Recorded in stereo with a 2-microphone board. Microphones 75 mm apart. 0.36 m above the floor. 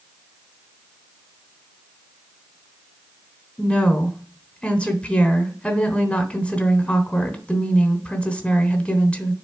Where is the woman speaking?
15° left (ahead or behind), 0.9 m.